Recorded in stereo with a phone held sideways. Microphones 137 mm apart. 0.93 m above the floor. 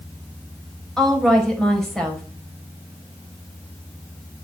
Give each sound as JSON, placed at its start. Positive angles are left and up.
{"t": 1.0, "sound": "a woman speaking", "side_deg": 5, "distance_m": 5.5}